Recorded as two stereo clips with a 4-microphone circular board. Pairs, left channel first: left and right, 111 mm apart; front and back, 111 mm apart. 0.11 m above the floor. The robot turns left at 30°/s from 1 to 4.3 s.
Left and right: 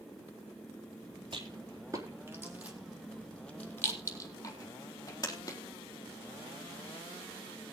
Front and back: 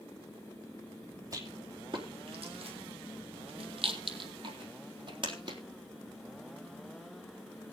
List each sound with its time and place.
1.3 s a rattle: 125° right, 3.5 m; by 5.6 s 145° left, 3.5 m